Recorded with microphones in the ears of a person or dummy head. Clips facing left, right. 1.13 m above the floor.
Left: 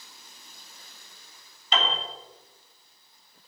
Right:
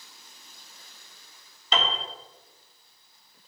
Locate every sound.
1.7 s a piano: 75° right (ahead or behind), 3 m